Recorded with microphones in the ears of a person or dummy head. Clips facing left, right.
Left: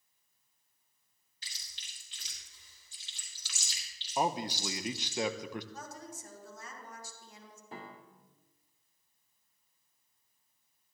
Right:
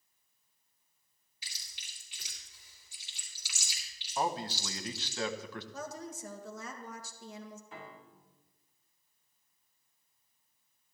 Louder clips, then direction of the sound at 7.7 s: Left 1 dB; 35° left (ahead or behind).